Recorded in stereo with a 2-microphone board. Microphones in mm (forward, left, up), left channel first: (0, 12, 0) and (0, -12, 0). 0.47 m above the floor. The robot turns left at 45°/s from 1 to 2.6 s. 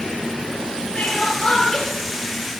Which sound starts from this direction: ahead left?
Crying, at 0.9 s.